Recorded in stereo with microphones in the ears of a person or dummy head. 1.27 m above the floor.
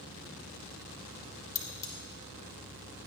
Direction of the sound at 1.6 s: 20° left (ahead or behind).